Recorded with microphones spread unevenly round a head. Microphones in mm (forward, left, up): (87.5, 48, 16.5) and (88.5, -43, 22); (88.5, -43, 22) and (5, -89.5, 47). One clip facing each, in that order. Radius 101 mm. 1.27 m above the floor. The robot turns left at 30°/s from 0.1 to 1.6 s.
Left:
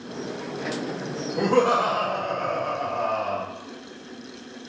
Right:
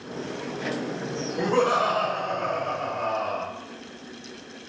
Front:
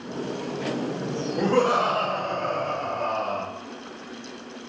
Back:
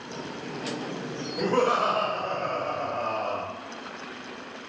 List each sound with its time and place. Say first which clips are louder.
1.4 s laughter: left 2 dB, front 2 dB; 80° left, 1.5 m; by 3.4 s 75° left, 1.5 m